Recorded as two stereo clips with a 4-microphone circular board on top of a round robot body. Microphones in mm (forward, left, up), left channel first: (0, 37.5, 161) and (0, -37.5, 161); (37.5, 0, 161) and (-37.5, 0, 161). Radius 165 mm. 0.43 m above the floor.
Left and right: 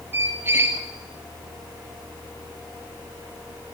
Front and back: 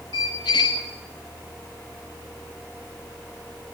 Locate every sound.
0.1 s a squeak: 30° right, 0.9 m